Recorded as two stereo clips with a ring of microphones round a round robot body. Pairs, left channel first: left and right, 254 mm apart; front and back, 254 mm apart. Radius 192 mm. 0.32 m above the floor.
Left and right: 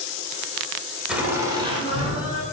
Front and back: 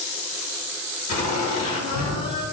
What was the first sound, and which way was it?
Laughter, straight ahead.